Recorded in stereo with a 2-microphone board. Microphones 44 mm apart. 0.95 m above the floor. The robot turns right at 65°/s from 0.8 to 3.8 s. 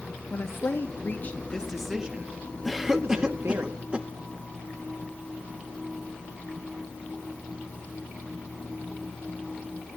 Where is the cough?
Centre (ahead or behind), 0.7 m; by 4.1 s 20° right (ahead or behind), 0.7 m.